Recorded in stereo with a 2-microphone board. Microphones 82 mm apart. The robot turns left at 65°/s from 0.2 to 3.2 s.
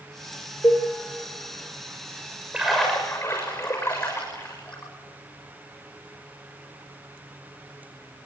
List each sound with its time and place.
0.6 s a cowbell: 40° left (ahead or behind), 3.5 m; by 0.9 s 25° left (ahead or behind), 3.5 m
2.5 s a splash: 10° right (ahead or behind), 7 m; by 4.9 s 30° left (ahead or behind), 7 m